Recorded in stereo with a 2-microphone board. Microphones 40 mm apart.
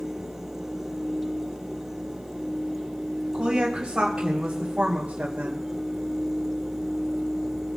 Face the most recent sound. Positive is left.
turn(degrees=-25)  # may be behind; listen again after turning